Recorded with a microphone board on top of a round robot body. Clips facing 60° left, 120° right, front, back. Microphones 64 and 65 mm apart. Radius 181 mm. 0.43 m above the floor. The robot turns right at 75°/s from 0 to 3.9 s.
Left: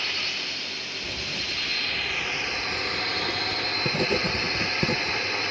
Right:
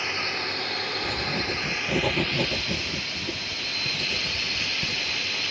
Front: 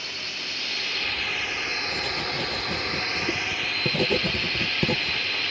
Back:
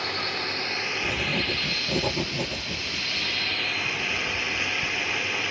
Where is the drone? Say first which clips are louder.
Right 3 dB, back 6 dB; 175° left; by 5.5 s 105° left.